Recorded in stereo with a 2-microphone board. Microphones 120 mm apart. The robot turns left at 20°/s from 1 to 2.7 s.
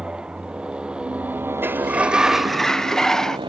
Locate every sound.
0.0 s a motorcycle: 10° right; by 3.5 s 40° right
1.6 s a sliding door: 15° right (ahead or behind); by 3.4 s 5° left (ahead or behind)